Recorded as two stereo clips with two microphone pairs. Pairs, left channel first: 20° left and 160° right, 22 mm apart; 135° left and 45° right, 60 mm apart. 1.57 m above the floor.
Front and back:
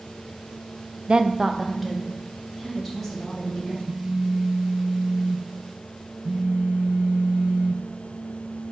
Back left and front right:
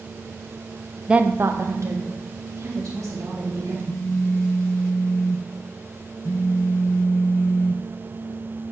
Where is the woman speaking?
125° right, 0.5 m; by 3.8 s 60° right, 4 m.